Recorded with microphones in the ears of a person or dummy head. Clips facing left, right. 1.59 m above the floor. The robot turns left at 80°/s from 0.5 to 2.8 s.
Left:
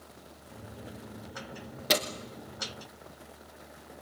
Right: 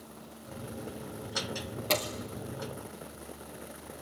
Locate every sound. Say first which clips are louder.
1.9 s a door slam: left 1 dB; 15° left (ahead or behind), 2 m; by 2.0 s 5° left (ahead or behind), 2 m